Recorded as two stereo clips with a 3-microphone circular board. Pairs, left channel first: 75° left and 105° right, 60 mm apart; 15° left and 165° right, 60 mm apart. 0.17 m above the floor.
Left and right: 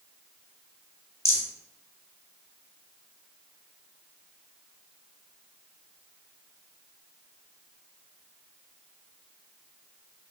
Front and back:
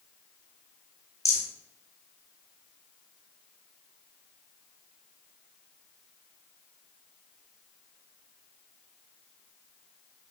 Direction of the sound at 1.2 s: 35° left.